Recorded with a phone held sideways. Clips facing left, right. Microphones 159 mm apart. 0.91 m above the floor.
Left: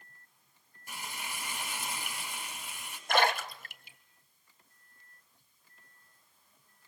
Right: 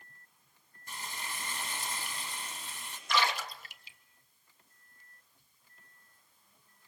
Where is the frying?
10° left (ahead or behind), 7 m.